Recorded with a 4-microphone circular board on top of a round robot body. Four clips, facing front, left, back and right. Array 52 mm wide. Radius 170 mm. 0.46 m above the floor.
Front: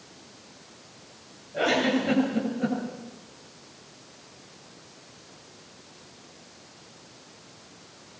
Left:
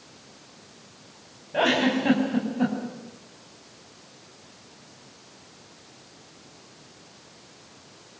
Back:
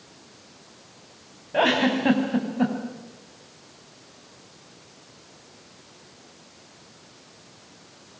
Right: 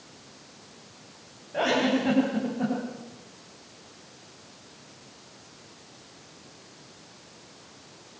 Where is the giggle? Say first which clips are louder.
Left 2 dB, back 3 dB; 165° left, 5.5 m.